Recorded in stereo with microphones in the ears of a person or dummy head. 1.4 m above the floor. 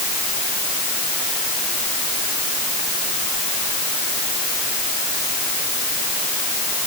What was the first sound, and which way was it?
Only background noise.